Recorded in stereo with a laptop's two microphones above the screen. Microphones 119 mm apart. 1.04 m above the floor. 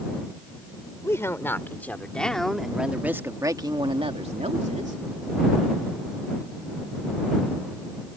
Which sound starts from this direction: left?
A woman speaking, at 1.0 s.